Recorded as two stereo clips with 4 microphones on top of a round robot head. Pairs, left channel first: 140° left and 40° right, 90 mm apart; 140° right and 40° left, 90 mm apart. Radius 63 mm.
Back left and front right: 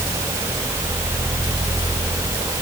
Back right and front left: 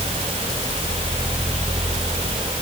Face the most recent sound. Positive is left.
No sound to turn to.